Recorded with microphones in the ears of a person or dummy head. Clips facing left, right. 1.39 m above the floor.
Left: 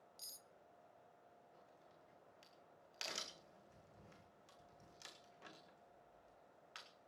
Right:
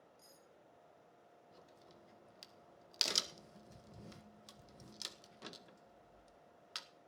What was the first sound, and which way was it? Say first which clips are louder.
Cutlery clinking: right 3 dB; 50° left (ahead or behind).